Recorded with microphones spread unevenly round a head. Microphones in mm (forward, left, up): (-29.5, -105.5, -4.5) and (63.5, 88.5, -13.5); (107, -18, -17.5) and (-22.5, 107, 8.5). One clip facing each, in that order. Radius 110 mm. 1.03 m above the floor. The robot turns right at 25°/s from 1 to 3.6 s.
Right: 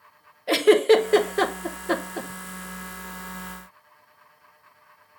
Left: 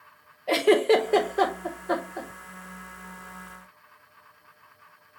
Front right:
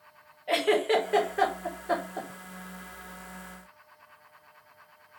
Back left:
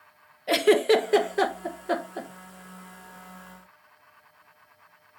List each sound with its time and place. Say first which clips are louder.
0.5 s a giggle: right 3 dB, back left 5 dB; straight behind, 0.8 m; by 2.3 s 150° right, 0.8 m